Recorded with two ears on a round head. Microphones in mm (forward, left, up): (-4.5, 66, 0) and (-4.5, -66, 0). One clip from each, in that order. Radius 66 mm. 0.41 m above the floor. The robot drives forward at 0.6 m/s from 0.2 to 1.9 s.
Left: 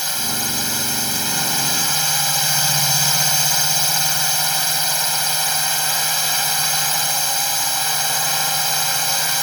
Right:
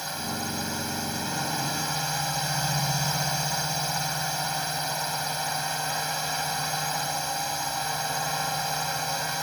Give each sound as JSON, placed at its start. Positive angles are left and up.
{"t": 0.0, "sound": "a drone", "side_deg": 60}